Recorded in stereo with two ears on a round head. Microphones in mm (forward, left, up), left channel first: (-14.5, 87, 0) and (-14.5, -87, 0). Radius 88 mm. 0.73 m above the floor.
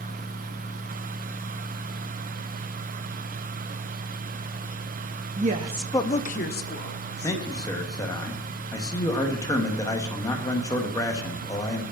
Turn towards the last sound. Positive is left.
turn(degrees=20)  # may be behind; listen again after turning